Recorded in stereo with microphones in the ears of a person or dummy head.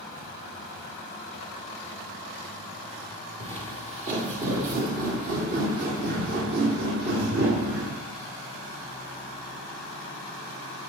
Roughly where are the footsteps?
Right.